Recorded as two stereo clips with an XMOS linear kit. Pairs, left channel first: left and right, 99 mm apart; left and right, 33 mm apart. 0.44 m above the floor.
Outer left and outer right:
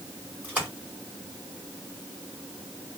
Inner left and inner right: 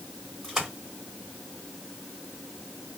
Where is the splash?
15° right (ahead or behind), 4 m.